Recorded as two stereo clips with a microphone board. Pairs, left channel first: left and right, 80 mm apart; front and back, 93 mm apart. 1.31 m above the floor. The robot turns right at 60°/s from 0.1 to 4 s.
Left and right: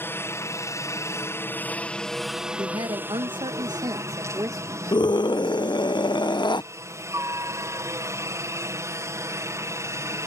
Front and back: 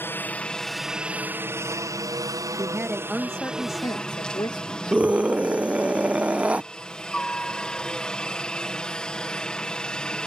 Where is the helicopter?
50° left; by 10.3 s 75° right.